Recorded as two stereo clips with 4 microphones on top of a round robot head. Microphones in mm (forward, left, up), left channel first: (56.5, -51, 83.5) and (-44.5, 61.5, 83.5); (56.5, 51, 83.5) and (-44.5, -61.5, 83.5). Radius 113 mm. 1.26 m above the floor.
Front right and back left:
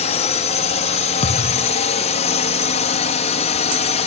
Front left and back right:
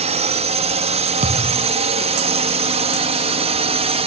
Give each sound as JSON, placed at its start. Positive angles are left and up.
{"t": 0.0, "sound": "a drone", "azimuth_deg": -90}
{"t": 1.2, "sound": "a thud", "azimuth_deg": -90}